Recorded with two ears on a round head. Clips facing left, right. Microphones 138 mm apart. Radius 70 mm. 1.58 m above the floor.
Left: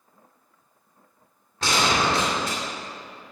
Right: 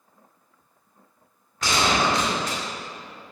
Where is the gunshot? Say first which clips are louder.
Even; 30° left (ahead or behind), 2.5 m.